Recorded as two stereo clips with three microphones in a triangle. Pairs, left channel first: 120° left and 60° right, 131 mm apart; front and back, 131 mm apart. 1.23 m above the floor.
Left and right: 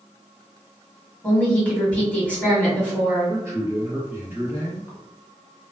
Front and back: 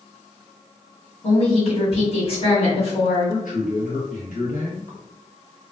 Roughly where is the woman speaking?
Ahead left.